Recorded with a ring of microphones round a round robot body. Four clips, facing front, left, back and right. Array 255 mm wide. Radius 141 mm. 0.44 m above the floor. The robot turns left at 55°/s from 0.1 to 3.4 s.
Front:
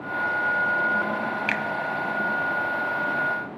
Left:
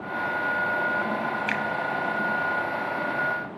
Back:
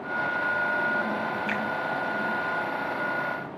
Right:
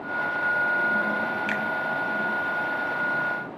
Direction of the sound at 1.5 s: 5° left.